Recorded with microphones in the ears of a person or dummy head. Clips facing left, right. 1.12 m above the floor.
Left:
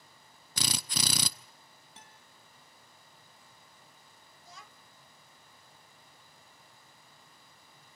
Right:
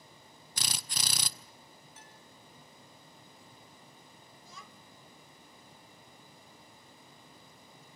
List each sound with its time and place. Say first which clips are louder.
0.6 s a drill: left 6 dB; 60° left (ahead or behind), 1.0 m
2.0 s a guitar: right 2 dB; 25° left (ahead or behind), 3 m
4.4 s a child speaking: even; 80° right, 1.3 m